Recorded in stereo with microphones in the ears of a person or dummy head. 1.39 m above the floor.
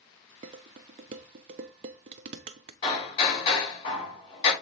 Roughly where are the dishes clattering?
Right.